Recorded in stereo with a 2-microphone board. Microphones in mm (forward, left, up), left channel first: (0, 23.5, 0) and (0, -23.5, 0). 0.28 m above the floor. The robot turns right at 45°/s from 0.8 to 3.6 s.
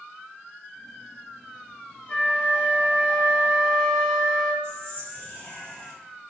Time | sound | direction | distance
2.1 | a flute | 105° left | 1.3 m
4.6 | whispering | 30° left (ahead or behind) | 1.2 m